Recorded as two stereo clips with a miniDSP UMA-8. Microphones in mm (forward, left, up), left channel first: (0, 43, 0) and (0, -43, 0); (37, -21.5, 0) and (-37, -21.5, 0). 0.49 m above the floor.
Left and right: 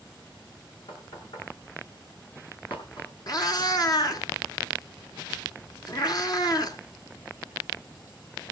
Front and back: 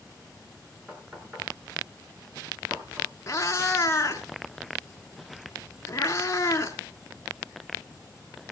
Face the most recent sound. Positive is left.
turn(degrees=50)